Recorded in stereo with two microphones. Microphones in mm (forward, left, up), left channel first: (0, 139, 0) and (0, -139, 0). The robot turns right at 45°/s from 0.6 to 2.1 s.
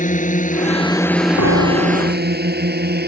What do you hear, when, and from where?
0.0 s a drone: 30° left (ahead or behind); by 3.1 s 35° right (ahead or behind)
1.4 s a piano: 85° left; by 2.4 s 115° left